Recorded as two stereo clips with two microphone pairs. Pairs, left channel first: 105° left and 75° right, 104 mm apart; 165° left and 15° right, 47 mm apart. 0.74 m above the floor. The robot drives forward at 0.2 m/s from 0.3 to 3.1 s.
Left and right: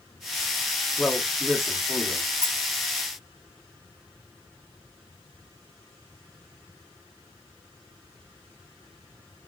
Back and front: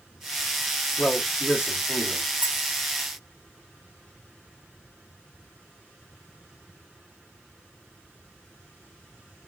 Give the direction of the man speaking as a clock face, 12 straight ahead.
6 o'clock.